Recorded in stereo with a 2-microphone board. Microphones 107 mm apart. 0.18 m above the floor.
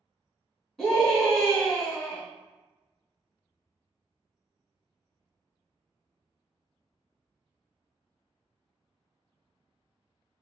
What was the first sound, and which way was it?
A scream, 5° left (ahead or behind).